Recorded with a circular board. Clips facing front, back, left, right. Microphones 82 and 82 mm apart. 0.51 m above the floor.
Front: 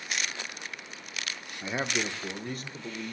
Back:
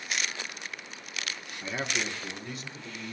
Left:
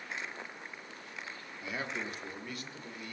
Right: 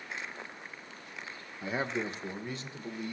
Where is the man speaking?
60° right, 0.8 m; by 3.1 s 25° right, 1.7 m.